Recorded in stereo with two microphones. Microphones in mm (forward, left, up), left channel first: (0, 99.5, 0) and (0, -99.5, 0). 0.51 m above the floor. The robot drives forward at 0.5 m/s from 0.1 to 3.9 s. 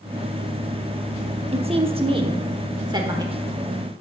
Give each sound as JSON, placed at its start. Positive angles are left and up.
{"t": 1.5, "sound": "a woman speaking", "side_deg": -30, "distance_m": 0.9}